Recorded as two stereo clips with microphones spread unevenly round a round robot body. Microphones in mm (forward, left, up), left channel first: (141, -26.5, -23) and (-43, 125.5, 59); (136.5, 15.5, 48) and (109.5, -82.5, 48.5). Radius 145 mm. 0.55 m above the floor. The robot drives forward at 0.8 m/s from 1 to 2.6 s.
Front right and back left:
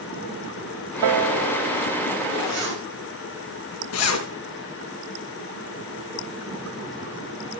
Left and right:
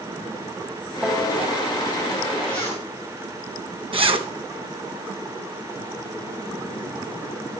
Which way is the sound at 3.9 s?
75° right.